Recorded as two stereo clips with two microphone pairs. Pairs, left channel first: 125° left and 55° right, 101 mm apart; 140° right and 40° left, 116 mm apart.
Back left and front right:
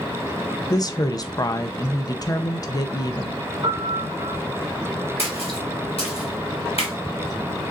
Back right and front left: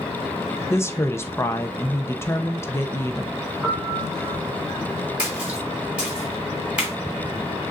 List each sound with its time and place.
0.7 s a woman speaking: 155° left, 0.6 m
3.6 s a piano: 40° right, 1.3 m
5.2 s a splash: 120° left, 1.8 m